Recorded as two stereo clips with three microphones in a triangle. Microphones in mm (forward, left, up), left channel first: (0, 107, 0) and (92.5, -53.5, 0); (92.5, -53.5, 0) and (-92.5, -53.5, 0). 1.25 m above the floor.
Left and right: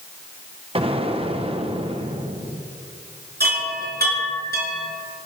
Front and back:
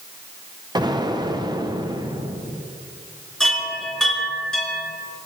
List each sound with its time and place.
0.8 s an explosion: 115° right, 1.1 m
3.4 s a chime: 85° right, 6 m